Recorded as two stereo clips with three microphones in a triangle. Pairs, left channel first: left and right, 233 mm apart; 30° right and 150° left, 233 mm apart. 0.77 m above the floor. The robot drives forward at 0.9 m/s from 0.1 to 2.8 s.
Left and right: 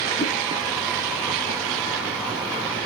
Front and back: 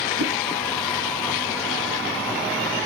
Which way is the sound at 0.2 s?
145° left.